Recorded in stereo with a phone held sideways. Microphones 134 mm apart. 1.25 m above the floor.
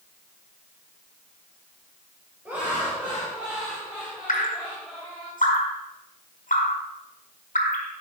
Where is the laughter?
5° right (ahead or behind), 4.5 m; by 5.3 s 5° left (ahead or behind), 5.5 m.